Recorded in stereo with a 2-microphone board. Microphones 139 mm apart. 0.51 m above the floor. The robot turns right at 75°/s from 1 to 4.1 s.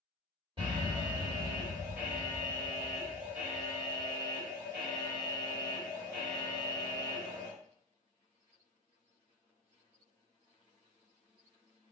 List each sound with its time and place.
0.6 s an alarm: 100° right, 1.9 m; by 7.5 s 135° left, 1.9 m